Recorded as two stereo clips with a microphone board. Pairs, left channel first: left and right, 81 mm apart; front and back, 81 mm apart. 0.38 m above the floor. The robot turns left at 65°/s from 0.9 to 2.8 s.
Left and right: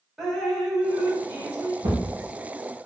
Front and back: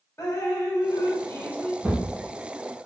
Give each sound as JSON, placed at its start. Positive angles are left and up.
{"t": 0.2, "sound": "dripping", "azimuth_deg": -5, "distance_m": 0.7}
{"t": 1.8, "sound": "a thud", "azimuth_deg": -100, "distance_m": 0.9}